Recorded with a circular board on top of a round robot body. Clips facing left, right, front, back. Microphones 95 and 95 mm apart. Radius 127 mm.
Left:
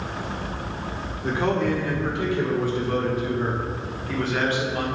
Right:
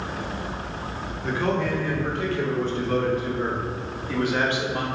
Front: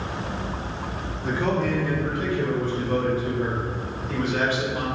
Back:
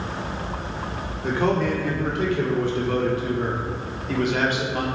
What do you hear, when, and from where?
1.2 s a man speaking: 150° left, 3 m; by 4.8 s 155° right, 2 m